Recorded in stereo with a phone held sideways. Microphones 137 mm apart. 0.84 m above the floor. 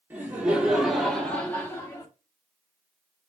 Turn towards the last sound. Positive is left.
turn(degrees=25)  # may be behind; listen again after turning